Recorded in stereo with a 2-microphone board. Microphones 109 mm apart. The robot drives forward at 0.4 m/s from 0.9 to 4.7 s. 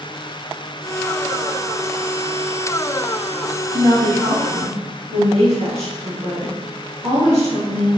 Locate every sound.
3.7 s a woman speaking: 70° right (ahead or behind), 3.5 m; by 7.9 s 60° right (ahead or behind), 3.5 m